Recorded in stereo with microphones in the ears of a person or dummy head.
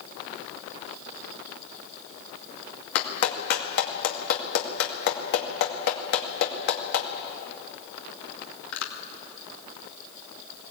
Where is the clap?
60° left (ahead or behind), 2 m.